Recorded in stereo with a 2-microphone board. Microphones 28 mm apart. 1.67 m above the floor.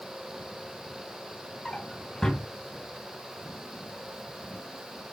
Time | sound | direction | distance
1.6 | a drawer | 25° left (ahead or behind) | 3.5 m